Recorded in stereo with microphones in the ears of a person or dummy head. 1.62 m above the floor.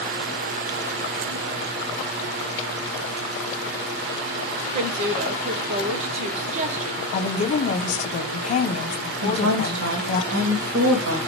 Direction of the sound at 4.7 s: 40° right (ahead or behind).